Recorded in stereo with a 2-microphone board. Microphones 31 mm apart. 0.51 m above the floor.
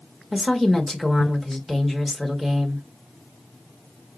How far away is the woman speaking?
About 1.4 m.